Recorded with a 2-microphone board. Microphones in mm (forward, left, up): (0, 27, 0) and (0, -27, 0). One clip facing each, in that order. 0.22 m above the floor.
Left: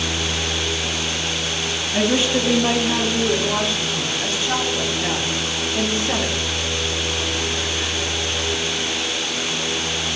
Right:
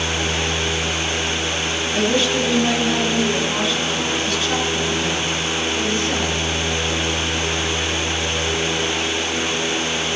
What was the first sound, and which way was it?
A woman speaking, 20° left (ahead or behind).